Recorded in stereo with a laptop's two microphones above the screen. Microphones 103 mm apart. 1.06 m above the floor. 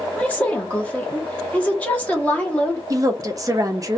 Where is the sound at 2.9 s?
35° right (ahead or behind), 0.6 m.